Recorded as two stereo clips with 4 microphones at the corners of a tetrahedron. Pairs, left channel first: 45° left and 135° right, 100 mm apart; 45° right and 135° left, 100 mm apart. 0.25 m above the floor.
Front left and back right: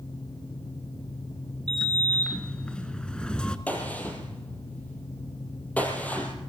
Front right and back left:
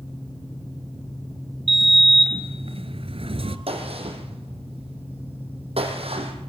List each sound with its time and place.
1.7 s a sliding door: 125° left, 1.6 m
3.7 s a gunshot: 120° left, 4 m